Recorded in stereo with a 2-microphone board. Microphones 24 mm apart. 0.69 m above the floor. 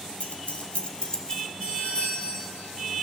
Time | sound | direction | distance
0.2 | keys jangling | 70° left (ahead or behind) | 1.3 m
1.6 | a doorbell | 55° left (ahead or behind) | 6.5 m